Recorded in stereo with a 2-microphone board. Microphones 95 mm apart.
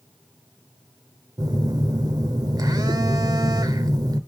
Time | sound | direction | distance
1.4 | a phone buzzing | 40° right (ahead or behind) | 1.2 m